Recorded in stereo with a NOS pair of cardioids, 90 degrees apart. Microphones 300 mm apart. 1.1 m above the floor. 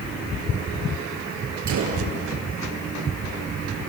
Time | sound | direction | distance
1.7 | a gunshot | 65° right | 5 m